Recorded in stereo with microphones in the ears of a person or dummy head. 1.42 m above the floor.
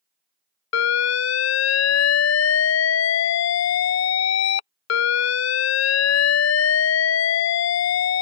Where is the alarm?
60° left (ahead or behind).